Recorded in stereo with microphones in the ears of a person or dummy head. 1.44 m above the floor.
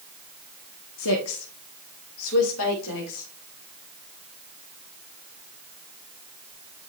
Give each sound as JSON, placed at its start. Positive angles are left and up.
{"t": 1.0, "sound": "a woman speaking", "side_deg": 65, "distance_m": 1.4}